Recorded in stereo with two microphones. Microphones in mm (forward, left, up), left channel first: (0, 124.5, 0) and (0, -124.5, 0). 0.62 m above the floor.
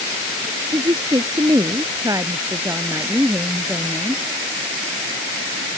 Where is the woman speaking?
20° right (ahead or behind); by 4.2 s 5° right (ahead or behind).